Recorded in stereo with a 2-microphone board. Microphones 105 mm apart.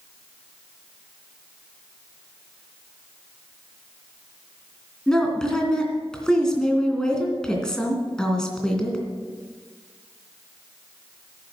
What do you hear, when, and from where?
5.1 s a woman speaking: 5° left (ahead or behind), 2.5 m